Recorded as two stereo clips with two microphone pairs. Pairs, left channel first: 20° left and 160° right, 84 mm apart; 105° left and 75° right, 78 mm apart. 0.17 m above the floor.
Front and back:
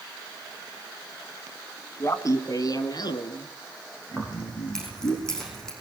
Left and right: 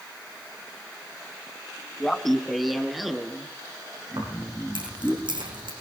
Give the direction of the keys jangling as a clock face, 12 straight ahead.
2 o'clock.